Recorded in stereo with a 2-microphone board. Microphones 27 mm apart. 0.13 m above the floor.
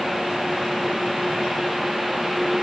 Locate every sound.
Only background noise.